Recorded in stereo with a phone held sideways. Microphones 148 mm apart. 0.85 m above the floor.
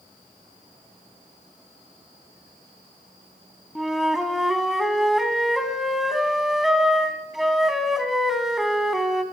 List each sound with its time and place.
3.8 s a flute: centre (ahead or behind), 2 m